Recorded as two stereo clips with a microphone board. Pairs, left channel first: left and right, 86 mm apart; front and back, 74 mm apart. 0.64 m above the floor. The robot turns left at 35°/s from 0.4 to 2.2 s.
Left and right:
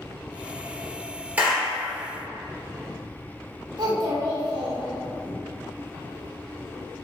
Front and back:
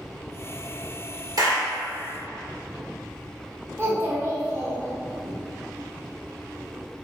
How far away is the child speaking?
About 1.6 m.